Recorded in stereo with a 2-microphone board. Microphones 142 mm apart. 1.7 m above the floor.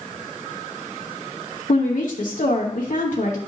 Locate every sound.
1.7 s a woman speaking: 70° left (ahead or behind), 1.1 m